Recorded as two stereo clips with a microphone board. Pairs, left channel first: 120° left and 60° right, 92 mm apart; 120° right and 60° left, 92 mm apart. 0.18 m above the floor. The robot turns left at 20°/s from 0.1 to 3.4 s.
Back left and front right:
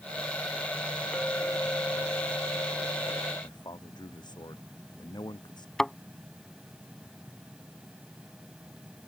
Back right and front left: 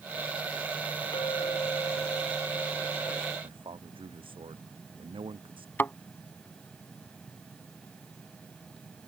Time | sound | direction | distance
1.1 | a clink | 160° right | ?
3.4 | a man speaking | 80° left | ?
5.8 | a thud | 165° right | ?